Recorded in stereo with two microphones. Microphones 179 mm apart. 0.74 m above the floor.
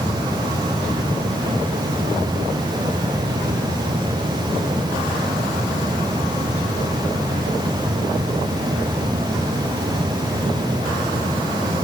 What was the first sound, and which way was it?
Only background noise.